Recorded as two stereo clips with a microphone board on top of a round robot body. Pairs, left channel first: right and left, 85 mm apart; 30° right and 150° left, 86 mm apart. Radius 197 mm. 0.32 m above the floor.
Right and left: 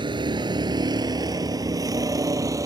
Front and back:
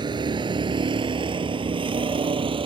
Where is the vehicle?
120° left; by 2.7 s 140° left.